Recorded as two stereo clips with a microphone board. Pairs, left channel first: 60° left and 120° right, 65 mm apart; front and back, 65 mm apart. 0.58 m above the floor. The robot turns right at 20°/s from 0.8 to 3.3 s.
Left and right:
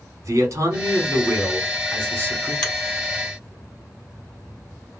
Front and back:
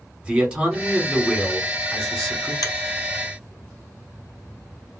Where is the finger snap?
20° right, 2.5 m; by 2.7 s 15° right, 2.5 m.